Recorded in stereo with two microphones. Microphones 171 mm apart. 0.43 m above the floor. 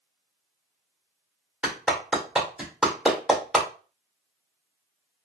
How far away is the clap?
About 1.2 m.